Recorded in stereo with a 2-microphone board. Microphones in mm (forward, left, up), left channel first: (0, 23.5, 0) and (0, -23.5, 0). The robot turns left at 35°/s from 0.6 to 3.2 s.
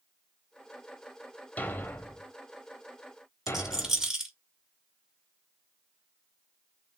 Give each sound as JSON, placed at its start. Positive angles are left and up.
{"t": 1.6, "sound": "a thud", "side_deg": 35, "distance_m": 0.8}
{"t": 3.5, "sound": "a rattle", "side_deg": -15, "distance_m": 1.4}